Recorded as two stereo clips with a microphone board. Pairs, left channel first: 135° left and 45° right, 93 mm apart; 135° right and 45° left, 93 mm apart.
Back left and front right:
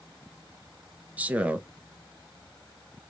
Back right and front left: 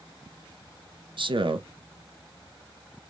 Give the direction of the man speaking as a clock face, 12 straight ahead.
11 o'clock.